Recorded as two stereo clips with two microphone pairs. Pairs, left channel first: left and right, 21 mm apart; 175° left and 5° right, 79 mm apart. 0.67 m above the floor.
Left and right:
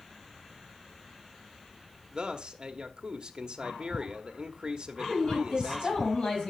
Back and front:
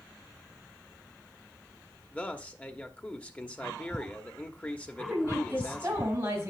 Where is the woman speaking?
55° left, 4.5 m.